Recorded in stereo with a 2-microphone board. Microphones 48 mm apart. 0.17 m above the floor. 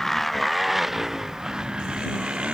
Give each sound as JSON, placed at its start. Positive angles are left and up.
{"t": 0.0, "sound": "a motorcycle", "side_deg": 5}